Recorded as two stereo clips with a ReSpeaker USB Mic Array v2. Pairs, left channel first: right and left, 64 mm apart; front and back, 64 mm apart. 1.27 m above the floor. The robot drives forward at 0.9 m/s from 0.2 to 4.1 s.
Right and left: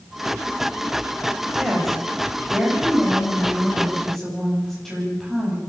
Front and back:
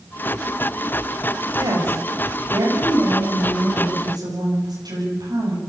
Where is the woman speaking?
175° right, 8 m.